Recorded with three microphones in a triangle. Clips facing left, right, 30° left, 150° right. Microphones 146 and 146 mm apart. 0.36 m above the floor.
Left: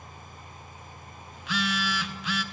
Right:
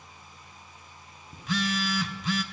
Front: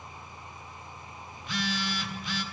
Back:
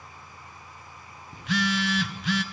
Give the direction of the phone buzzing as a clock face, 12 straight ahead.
5 o'clock.